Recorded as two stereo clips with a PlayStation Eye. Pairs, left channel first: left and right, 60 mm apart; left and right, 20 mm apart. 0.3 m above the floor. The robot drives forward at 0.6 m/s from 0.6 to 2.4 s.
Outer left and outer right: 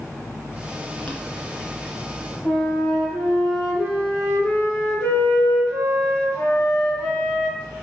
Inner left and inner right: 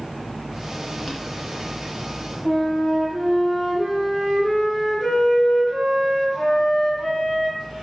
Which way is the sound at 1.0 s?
15° left (ahead or behind).